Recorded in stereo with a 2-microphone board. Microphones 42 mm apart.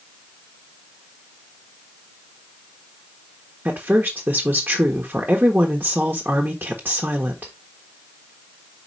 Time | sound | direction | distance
3.6 | a woman speaking | 45° right (ahead or behind) | 1.4 m